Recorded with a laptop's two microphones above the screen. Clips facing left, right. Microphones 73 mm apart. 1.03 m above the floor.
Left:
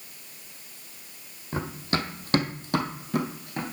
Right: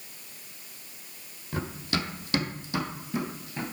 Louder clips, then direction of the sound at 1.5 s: Left 2 dB; 25° left (ahead or behind).